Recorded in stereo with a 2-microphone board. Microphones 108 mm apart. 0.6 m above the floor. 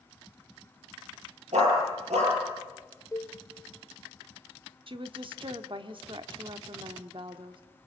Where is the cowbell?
30° left (ahead or behind), 2 m.